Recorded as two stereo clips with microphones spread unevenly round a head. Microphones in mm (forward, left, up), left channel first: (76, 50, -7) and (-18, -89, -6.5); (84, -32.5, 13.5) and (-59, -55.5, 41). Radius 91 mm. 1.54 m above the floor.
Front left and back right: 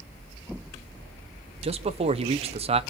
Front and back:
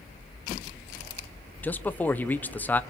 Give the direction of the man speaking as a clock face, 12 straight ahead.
2 o'clock.